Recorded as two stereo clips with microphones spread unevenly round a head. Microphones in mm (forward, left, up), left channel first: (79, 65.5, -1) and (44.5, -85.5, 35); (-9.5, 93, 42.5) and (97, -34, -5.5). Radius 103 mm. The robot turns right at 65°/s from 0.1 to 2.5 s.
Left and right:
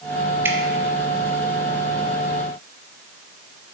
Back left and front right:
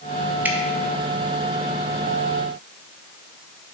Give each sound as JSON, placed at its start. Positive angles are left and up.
{"t": 0.5, "sound": "dripping", "azimuth_deg": -15, "distance_m": 0.8}